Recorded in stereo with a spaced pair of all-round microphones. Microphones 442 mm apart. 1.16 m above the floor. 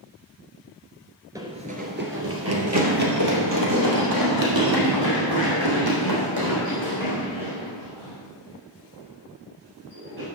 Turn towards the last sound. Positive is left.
turn(degrees=-65)  # may be behind; listen again after turning